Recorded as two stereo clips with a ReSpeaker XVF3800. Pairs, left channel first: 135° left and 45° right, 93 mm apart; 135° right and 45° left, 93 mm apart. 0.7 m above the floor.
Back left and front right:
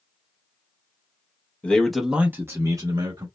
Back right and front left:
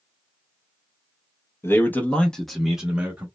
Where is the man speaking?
160° right, 0.7 m; by 3.3 s 25° right, 0.9 m.